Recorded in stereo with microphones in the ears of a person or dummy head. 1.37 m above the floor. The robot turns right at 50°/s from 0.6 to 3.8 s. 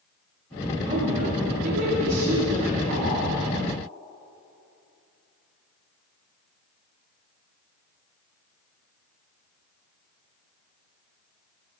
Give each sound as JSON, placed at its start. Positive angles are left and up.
{"t": 0.9, "sound": "a woman speaking", "azimuth_deg": -150, "distance_m": 1.5}